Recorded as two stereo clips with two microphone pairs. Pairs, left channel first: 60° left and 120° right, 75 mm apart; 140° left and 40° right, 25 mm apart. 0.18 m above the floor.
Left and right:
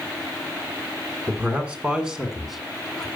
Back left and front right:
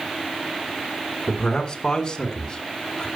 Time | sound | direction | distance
1.3 | a man speaking | straight behind | 2.0 m